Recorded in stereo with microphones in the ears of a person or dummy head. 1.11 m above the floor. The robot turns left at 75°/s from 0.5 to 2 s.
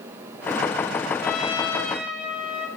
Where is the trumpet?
55° left, 6.5 m; by 2.7 s 5° right, 6.5 m.